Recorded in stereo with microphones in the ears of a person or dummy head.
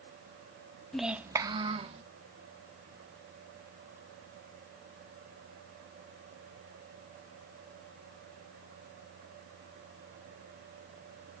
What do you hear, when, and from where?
0.9 s a child speaking: centre (ahead or behind), 0.8 m; by 2.0 s 35° right (ahead or behind), 1.5 m